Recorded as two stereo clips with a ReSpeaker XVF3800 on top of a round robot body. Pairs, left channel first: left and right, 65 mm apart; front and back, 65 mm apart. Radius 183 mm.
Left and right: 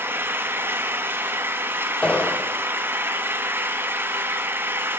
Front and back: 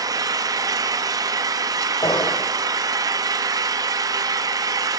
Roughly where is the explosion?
Ahead.